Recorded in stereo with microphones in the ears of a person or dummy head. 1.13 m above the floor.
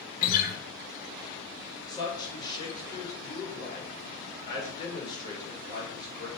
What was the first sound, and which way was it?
A guitar, 50° left (ahead or behind).